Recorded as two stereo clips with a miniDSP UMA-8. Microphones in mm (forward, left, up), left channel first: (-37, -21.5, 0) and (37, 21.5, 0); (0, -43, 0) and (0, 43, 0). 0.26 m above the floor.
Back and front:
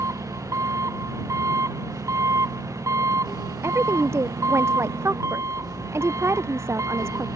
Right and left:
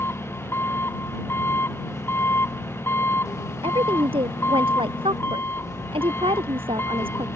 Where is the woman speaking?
90° left.